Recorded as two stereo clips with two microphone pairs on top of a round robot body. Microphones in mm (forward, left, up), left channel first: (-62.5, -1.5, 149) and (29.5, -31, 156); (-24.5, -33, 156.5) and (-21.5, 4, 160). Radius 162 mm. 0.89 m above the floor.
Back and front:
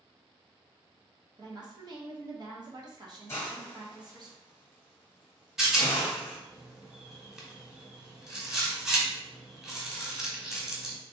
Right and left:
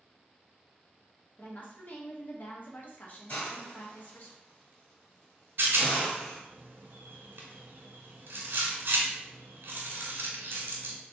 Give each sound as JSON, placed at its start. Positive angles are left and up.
{"t": 1.4, "sound": "a woman speaking", "azimuth_deg": -60, "distance_m": 1.3}
{"t": 3.3, "sound": "a hiss", "azimuth_deg": -135, "distance_m": 1.2}
{"t": 5.6, "sound": "a rattle", "azimuth_deg": 70, "distance_m": 1.1}